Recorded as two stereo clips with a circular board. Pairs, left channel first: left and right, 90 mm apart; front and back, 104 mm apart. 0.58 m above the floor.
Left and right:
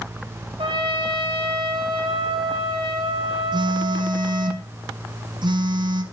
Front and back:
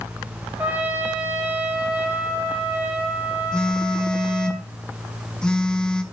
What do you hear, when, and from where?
0.6 s a trumpet: 105° right, 3 m
3.5 s a phone buzzing: 80° right, 1.0 m